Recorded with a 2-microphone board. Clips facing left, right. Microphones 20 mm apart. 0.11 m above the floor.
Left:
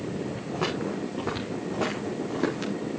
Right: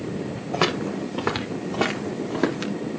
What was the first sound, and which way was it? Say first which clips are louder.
Footsteps: right 6 dB; 60° right (ahead or behind).